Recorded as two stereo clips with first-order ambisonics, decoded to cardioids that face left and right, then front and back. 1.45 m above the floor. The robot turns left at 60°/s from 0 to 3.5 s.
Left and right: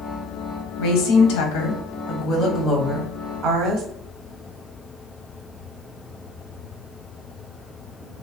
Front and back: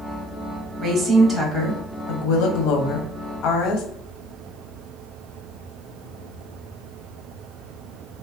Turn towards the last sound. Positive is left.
turn(degrees=-45)